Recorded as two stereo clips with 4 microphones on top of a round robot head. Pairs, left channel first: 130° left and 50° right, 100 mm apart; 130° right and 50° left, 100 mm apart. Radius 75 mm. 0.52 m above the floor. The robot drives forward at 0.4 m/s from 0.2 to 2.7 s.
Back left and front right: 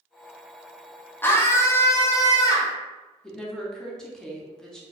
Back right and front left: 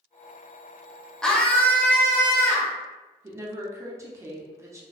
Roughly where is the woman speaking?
Ahead left.